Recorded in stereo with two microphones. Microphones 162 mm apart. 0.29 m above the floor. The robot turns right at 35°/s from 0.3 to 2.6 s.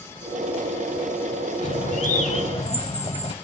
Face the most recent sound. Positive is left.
turn(degrees=120)